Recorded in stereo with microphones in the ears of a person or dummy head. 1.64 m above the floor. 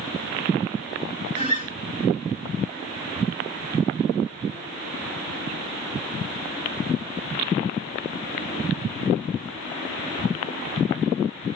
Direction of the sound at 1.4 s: 45° right (ahead or behind).